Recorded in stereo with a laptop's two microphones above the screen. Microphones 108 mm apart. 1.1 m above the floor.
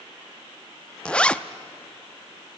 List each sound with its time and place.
1.1 s a zipper: 10° left (ahead or behind), 0.6 m